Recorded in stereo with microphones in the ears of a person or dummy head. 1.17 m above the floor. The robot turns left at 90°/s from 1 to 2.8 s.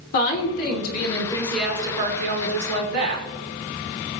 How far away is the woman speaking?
About 3 m.